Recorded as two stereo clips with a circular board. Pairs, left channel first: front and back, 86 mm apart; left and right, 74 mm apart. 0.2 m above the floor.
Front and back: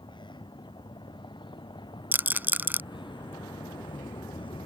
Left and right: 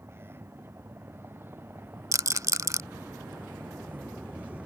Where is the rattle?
120° right.